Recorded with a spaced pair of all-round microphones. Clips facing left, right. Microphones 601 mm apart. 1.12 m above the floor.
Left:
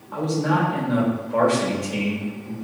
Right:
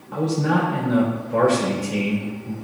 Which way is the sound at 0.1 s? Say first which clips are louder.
Right 1 dB; 50° right (ahead or behind).